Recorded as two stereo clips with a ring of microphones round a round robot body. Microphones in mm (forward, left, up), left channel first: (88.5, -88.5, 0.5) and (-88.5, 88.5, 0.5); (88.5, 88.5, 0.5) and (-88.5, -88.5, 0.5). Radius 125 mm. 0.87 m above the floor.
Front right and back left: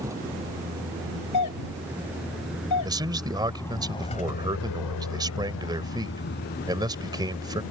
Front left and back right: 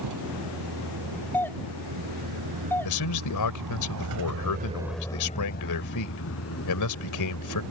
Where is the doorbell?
35° right.